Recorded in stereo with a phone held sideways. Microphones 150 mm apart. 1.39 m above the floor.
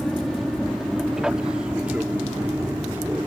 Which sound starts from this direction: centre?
An aircraft, at 0.0 s.